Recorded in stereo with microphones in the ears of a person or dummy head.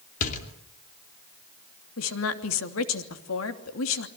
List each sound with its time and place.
0.2 s a door slam: 45° left (ahead or behind), 2.5 m
2.0 s a woman speaking: 75° left (ahead or behind), 3 m